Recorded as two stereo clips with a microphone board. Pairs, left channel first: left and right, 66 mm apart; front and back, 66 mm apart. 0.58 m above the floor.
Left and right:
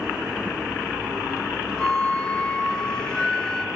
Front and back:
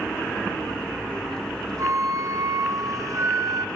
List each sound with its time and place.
1.8 s a flute: 165° left, 0.6 m